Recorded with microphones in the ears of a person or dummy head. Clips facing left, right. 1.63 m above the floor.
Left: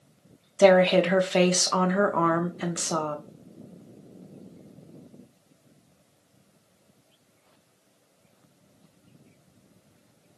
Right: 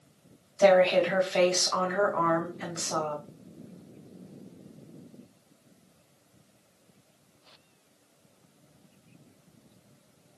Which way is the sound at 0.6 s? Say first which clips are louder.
Left 3 dB; 45° left (ahead or behind).